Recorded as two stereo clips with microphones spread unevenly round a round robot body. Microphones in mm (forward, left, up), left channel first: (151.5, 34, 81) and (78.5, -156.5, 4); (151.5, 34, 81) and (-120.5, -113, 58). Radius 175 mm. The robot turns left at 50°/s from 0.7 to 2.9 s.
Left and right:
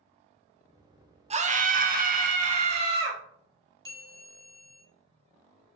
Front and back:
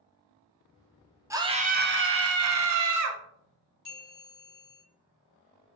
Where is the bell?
5° left, 1.7 m.